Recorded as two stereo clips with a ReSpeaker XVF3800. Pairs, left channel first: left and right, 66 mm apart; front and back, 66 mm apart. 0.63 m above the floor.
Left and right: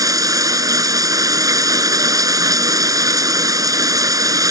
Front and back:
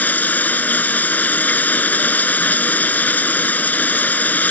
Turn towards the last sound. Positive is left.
turn(degrees=-65)